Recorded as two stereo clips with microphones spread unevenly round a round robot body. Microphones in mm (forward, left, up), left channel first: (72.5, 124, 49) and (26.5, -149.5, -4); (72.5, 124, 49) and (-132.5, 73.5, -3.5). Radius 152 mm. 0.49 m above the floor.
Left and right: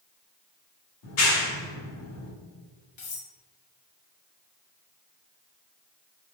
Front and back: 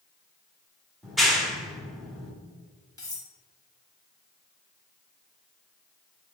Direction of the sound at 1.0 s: 115° left.